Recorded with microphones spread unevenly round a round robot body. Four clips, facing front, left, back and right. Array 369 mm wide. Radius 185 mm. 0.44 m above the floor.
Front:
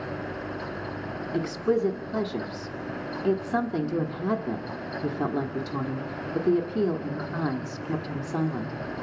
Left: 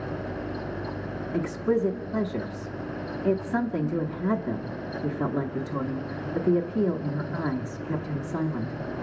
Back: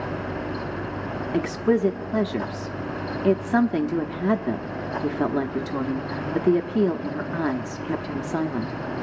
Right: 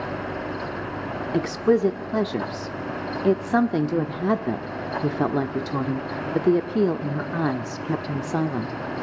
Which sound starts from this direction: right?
A woman speaking, at 1.3 s.